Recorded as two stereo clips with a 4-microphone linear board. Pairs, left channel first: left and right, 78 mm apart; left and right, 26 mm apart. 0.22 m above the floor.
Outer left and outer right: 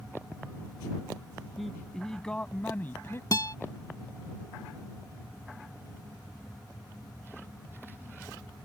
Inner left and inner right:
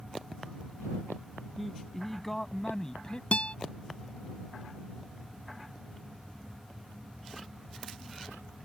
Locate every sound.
1.6 s a man speaking: centre (ahead or behind); by 3.2 s 35° left (ahead or behind)
3.3 s a guitar: 50° left (ahead or behind)